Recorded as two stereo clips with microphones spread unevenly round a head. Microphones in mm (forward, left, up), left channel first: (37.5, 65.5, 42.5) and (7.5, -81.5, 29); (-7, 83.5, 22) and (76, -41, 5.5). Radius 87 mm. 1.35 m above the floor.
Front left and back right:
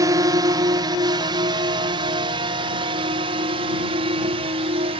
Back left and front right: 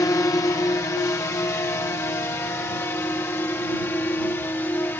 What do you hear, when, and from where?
0.0 s a drone: 165° right; by 5.0 s 160° right